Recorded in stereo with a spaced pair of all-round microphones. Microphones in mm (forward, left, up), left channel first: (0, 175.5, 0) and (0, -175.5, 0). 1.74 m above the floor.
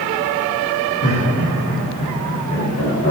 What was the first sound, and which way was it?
Laughter, 60° left (ahead or behind).